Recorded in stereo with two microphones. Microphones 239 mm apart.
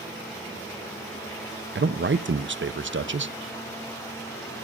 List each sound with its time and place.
1.8 s a man speaking: 55° right (ahead or behind), 0.7 m